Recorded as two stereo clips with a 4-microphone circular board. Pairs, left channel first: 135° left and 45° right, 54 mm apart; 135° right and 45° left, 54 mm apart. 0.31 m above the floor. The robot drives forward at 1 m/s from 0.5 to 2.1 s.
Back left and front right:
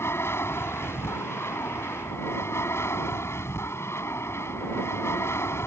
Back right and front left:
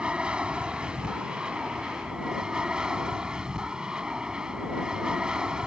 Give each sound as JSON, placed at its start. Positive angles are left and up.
{"t": 0.0, "sound": "an aircraft", "azimuth_deg": 110}